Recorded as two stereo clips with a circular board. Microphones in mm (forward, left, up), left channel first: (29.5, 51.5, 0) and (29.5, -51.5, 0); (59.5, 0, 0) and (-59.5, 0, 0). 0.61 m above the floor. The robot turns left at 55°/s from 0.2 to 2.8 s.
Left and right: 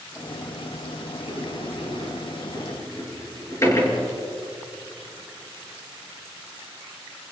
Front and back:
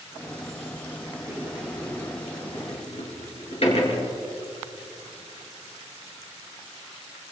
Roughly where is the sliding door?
Behind left.